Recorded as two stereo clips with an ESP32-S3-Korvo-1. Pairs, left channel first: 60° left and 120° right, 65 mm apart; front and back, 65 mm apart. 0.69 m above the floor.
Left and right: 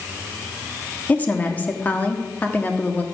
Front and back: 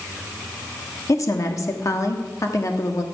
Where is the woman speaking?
Straight ahead, 1.4 m.